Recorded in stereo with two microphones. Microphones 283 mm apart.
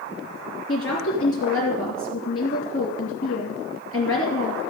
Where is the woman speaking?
50° left (ahead or behind), 3 m.